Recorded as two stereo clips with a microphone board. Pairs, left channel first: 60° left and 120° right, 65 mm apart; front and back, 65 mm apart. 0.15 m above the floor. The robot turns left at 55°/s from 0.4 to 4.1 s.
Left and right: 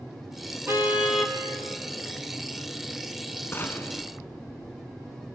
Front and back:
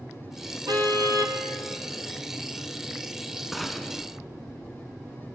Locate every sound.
0.7 s a car horn: 170° right, 2.5 m; by 1.4 s 150° left, 2.5 m
3.5 s a gunshot: 95° left, 1.5 m; by 4.0 s 70° left, 1.5 m